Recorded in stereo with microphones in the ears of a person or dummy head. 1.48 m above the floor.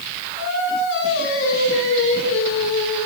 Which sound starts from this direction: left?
Singing, at 0.3 s.